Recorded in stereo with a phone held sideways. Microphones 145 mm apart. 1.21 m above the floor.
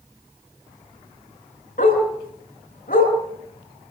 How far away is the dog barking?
About 7 m.